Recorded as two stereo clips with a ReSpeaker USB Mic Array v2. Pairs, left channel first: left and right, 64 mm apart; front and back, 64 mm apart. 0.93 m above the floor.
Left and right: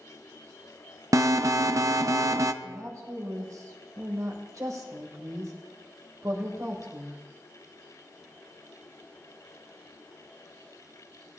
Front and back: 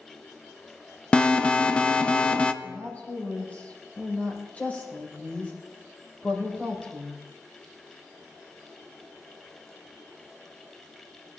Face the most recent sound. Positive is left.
turn(degrees=-65)